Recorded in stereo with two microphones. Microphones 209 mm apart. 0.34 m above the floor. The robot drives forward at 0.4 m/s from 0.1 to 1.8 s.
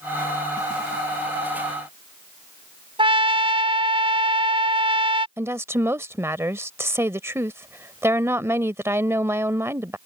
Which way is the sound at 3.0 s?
25° right (ahead or behind).